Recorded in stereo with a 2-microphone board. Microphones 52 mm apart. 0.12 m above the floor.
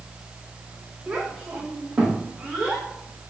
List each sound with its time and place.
1.1 s a child speaking: 15° right (ahead or behind), 9.5 m; by 2.9 s 20° right (ahead or behind), 11.5 m